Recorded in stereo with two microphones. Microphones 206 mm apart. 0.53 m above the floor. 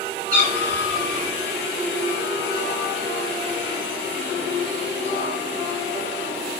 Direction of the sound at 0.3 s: 45° right (ahead or behind).